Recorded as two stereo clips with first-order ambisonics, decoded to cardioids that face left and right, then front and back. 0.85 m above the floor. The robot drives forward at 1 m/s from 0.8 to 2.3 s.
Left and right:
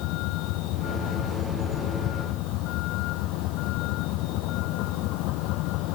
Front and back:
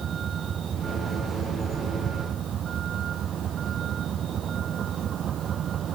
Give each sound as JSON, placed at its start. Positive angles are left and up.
{"t": 0.0, "sound": "a vehicle", "azimuth_deg": 115}